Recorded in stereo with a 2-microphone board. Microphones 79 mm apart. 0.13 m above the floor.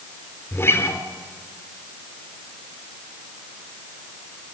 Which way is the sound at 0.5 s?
30° left (ahead or behind).